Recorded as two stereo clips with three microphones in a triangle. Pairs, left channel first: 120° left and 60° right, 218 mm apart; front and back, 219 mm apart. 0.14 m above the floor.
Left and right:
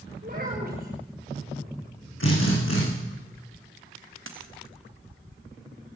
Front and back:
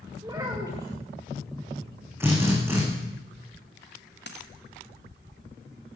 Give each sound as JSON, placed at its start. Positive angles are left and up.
{"t": 0.2, "sound": "a child speaking", "azimuth_deg": -105, "distance_m": 7.0}
{"t": 2.2, "sound": "a drill", "azimuth_deg": 100, "distance_m": 8.5}
{"t": 4.3, "sound": "a dropped coin", "azimuth_deg": -40, "distance_m": 3.0}